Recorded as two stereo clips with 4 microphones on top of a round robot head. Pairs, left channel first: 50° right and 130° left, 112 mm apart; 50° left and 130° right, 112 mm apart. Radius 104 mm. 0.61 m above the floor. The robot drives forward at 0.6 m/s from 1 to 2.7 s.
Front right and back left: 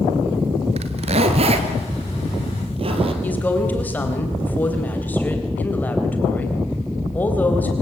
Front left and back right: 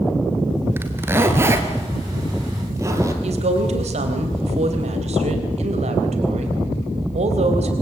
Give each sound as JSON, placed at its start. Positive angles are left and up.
{"t": 0.8, "sound": "a zipper", "azimuth_deg": 160, "distance_m": 2.0}
{"t": 3.2, "sound": "a woman speaking", "azimuth_deg": -125, "distance_m": 3.5}